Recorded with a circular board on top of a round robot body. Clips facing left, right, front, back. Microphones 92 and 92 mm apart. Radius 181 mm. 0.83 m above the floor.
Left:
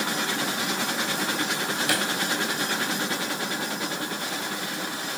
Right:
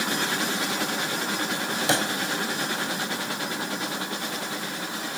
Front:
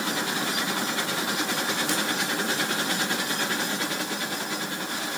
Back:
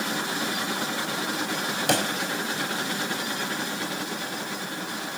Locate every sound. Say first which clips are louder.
1.9 s a pop: right 4 dB, back 3 dB; 155° right